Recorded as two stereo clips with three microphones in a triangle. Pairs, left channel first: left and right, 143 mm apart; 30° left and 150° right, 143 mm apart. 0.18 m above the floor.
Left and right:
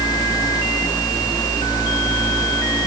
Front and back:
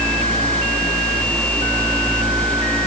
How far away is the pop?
No pop in this recording.